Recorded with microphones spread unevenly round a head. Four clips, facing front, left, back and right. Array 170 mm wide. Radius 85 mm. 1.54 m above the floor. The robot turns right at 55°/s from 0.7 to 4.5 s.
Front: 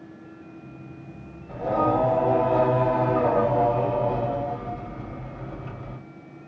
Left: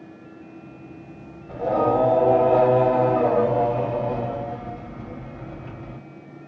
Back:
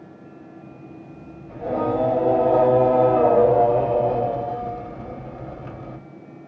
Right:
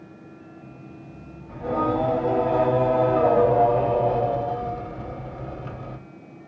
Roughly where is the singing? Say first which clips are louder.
Left 4 dB, front 1 dB; left.